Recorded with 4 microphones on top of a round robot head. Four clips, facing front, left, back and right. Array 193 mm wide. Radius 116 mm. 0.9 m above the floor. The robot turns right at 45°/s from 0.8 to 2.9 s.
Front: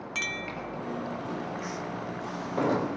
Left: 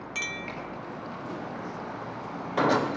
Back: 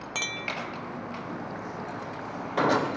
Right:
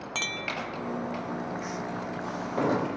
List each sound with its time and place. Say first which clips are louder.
0.1 s a clink: right 3 dB, back 2 dB; 130° right, 0.6 m